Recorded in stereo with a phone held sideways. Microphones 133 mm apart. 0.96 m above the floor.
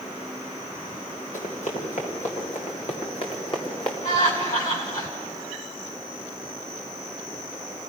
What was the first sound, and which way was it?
Running footsteps, 65° left (ahead or behind).